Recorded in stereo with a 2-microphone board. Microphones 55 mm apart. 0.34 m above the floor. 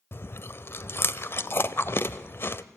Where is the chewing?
45° left (ahead or behind), 0.7 m.